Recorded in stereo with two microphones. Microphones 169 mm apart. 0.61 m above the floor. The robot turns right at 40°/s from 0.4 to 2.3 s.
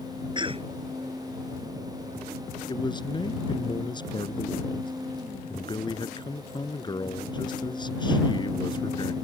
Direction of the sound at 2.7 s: 25° left (ahead or behind).